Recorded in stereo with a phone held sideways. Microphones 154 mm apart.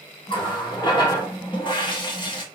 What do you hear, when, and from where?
0.3 s a running tap: 30° left (ahead or behind), 0.8 m